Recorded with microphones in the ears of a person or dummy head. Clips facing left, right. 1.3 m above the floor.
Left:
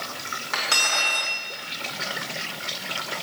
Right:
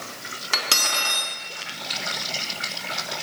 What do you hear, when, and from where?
0.5 s cutlery clinking: 55° right (ahead or behind), 1.3 m